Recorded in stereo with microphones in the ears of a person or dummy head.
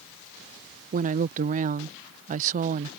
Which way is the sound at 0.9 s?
35° right (ahead or behind).